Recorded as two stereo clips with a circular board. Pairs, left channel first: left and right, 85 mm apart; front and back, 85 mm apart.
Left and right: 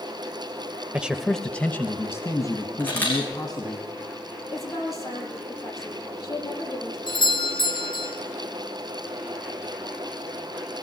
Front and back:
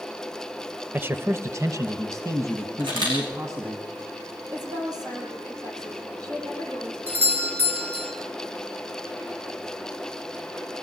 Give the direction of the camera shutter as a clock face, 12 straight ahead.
7 o'clock.